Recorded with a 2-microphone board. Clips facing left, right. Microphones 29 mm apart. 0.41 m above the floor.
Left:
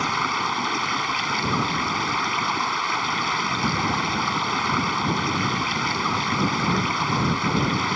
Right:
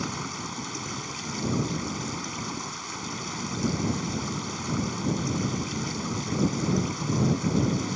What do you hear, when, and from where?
0.0 s running water: 55° left (ahead or behind)